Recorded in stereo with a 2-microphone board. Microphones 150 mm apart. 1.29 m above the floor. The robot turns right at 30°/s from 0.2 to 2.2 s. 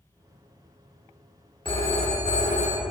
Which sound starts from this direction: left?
A phone ringing, at 1.6 s.